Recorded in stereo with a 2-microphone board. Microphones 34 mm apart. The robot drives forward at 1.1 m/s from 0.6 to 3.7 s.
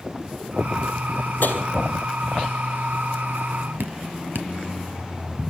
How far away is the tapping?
About 3 m.